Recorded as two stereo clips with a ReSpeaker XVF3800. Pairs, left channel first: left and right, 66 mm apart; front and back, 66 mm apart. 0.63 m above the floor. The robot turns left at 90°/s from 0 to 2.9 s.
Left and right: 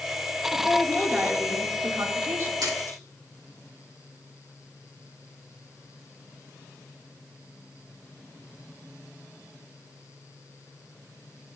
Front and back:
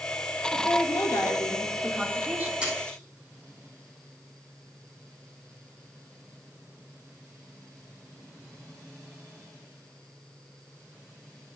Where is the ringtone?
No ringtone in this recording.